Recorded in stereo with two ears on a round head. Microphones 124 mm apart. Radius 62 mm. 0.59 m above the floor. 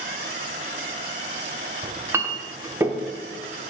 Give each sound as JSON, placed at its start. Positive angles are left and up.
{"t": 1.8, "sound": "a clink", "side_deg": -15, "distance_m": 0.6}